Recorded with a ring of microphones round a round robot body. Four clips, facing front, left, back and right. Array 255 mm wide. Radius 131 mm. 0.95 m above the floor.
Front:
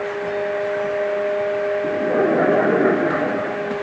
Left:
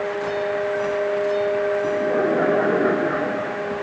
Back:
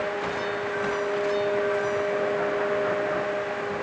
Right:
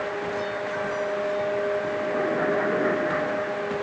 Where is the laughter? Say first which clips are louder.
Left 5 dB, front 7 dB; 20° left.